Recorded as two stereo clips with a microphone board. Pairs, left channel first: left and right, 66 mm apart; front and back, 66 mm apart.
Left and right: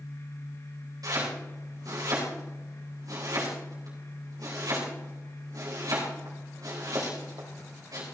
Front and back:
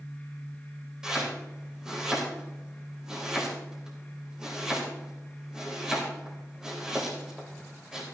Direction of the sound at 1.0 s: 100° right.